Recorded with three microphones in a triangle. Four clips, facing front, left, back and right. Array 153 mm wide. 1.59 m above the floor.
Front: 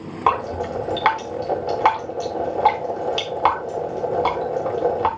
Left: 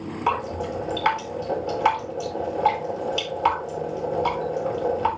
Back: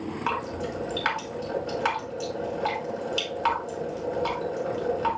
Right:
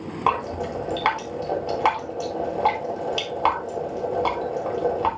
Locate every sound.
0.3 s dripping: 35° right, 3.5 m